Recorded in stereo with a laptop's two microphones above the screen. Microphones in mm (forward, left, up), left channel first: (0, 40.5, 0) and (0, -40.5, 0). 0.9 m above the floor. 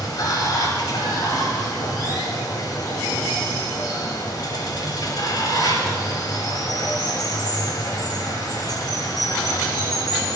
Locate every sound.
0.0 s running water: 55° left (ahead or behind), 1.4 m